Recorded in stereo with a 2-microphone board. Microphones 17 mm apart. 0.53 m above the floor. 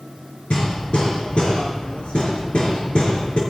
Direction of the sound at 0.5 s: 85° left.